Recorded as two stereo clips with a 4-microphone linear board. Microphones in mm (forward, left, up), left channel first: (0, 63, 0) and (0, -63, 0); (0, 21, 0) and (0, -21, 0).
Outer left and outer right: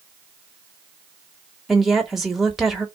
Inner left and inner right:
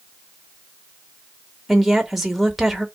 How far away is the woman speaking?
About 1.0 m.